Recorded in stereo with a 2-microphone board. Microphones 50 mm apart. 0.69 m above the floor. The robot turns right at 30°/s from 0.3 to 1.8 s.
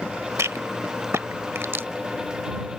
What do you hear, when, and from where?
0.4 s a rattle: 75° right (ahead or behind); by 1.9 s 50° right (ahead or behind)